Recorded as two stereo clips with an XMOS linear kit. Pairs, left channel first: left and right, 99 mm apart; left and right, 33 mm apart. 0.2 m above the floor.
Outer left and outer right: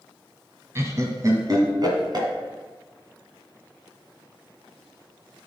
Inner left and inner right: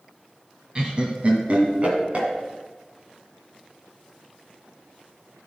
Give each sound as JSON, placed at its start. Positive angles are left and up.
{"t": 0.8, "sound": "laughter", "side_deg": -30, "distance_m": 1.3}